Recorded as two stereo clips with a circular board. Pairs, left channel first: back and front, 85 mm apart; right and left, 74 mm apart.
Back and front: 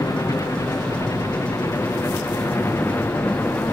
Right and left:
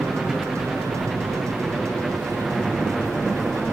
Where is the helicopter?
175° left; by 3.8 s straight behind.